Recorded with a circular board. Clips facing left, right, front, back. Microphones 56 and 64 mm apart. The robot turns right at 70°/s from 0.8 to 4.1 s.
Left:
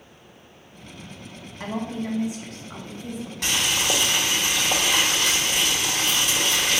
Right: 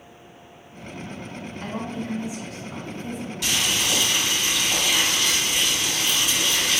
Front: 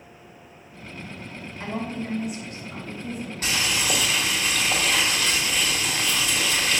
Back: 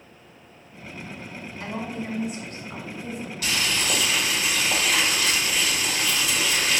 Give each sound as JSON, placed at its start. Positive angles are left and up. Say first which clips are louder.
{"t": 1.6, "sound": "a woman speaking", "louder": "left 3 dB, front 2 dB", "azimuth_deg": 70, "distance_m": 1.3}
{"t": 3.4, "sound": "boiling", "louder": "left 1 dB, even", "azimuth_deg": 50, "distance_m": 1.3}